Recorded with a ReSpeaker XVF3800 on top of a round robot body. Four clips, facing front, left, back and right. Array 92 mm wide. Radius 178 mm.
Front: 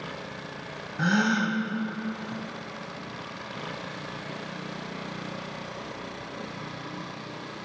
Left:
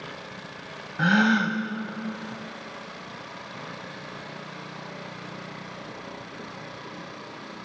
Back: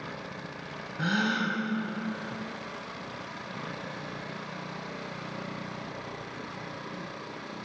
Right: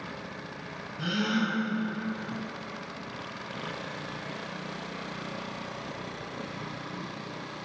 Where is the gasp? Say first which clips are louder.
Left 8 dB, front 4 dB; 75° left, 2.5 m.